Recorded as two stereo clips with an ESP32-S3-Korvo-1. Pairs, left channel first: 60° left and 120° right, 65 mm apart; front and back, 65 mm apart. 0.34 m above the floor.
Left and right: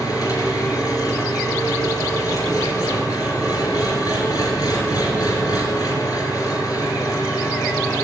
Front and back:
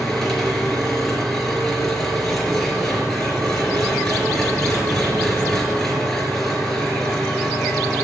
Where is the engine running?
85° left, 4 m.